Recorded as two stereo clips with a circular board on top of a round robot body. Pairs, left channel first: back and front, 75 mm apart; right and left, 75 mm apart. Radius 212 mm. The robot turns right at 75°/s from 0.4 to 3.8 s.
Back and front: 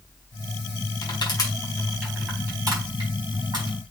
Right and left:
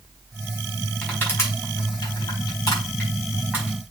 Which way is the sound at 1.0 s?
170° right.